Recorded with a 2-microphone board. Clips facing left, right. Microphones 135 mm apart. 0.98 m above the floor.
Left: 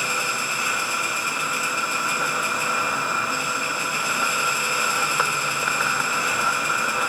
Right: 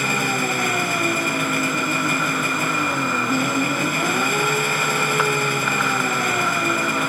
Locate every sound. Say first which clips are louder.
0.0 s an engine running: right 6 dB; 60° right (ahead or behind)